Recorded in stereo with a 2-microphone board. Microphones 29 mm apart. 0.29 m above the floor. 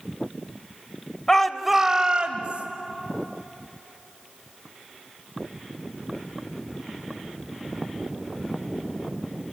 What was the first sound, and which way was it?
A shout, 20° left (ahead or behind).